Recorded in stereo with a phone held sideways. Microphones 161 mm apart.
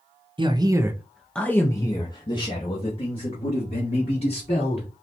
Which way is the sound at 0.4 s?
30° right (ahead or behind).